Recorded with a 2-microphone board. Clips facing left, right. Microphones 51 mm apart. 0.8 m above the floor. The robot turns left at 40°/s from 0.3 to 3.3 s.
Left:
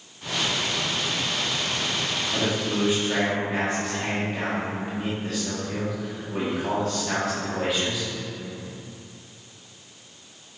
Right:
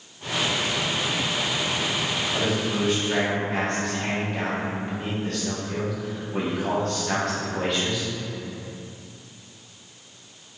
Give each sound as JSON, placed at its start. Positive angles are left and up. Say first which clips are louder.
{"t": 2.3, "sound": "a man speaking", "louder": "left 1 dB", "azimuth_deg": 45, "distance_m": 1.9}